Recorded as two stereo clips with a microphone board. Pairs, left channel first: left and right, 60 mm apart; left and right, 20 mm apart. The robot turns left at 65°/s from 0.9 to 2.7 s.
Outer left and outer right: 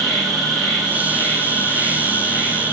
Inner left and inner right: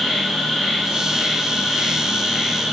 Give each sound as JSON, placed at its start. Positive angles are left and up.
{"t": 0.0, "sound": "an insect", "azimuth_deg": 180, "distance_m": 1.0}